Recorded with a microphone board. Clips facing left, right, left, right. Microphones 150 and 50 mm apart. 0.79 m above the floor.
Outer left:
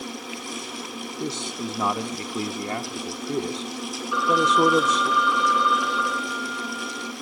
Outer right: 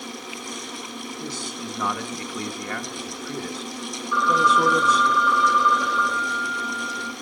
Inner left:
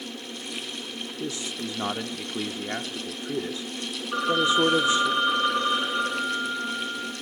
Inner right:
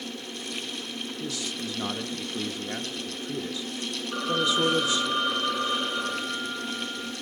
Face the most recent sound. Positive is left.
turn(degrees=15)  # may be behind; listen again after turning